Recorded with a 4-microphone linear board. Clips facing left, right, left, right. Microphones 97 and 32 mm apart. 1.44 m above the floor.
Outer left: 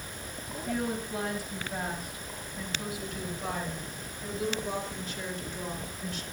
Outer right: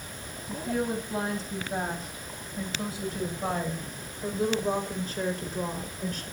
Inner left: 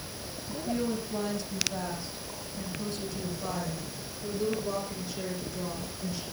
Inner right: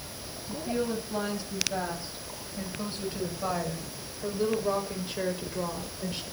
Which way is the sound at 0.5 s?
20° right (ahead or behind).